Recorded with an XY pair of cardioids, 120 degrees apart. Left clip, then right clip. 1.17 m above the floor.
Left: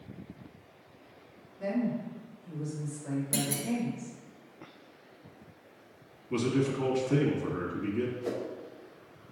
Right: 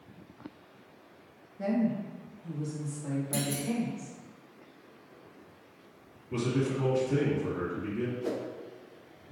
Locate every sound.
1.6 s a woman speaking: 70° right, 1.3 m; by 4.1 s 60° right, 2.5 m
3.3 s a clunk: 30° left, 0.9 m
6.3 s a man speaking: 30° left, 1.5 m
8.2 s a whoosh: 10° right, 0.7 m